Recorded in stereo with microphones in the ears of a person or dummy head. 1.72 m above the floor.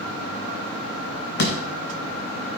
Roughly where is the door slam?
Left.